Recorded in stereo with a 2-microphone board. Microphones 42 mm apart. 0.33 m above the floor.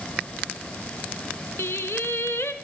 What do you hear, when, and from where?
1.6 s singing: 85° left, 1.1 m